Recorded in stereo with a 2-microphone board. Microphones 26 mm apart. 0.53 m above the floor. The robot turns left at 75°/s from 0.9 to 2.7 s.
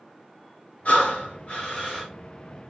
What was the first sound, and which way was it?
Breathing, 95° left.